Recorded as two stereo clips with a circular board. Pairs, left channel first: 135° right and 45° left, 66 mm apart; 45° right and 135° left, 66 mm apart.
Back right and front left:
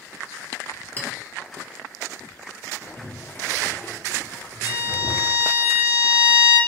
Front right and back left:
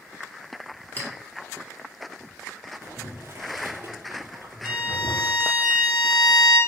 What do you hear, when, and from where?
1.0 s a clink: 90° right, 0.7 m
2.8 s boiling: 170° left, 0.7 m
4.6 s a violin: 5° left, 1.3 m